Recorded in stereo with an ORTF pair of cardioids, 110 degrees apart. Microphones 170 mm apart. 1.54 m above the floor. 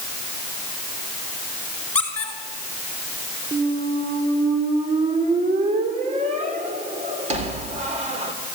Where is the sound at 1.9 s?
10° left, 5.5 m.